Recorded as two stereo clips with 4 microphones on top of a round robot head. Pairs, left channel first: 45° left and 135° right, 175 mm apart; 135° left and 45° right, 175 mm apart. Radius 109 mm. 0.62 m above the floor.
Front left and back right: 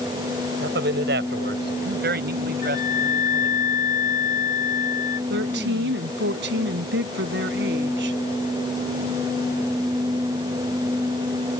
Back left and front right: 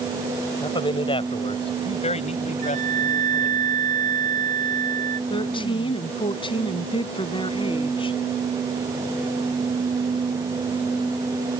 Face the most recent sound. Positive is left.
turn(degrees=-160)